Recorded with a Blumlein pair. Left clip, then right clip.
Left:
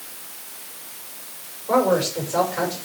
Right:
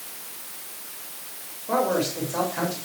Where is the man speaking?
5° left, 6 m.